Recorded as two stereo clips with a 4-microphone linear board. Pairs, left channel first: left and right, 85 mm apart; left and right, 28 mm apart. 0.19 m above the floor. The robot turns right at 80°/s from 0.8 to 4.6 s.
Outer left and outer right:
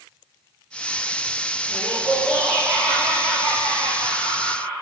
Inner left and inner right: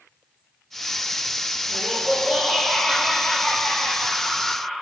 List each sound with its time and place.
1.7 s laughter: 100° right, 4 m; by 4.8 s 135° left, 4 m